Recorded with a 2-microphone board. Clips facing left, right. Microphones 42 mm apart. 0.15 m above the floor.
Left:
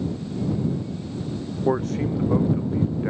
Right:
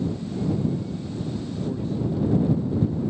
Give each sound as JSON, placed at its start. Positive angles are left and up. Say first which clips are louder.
{"t": 1.7, "sound": "a man speaking", "louder": "left 6 dB", "side_deg": 85}